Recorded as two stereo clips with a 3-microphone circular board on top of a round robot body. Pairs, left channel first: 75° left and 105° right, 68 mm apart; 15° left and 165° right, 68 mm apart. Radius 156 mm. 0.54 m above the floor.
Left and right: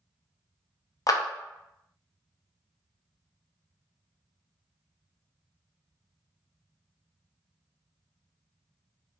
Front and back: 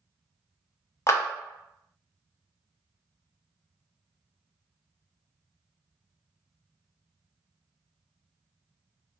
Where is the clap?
55° left, 0.8 m.